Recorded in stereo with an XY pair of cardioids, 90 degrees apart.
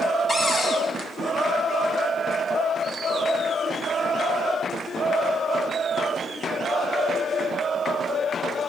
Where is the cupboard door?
40° left, 4 m.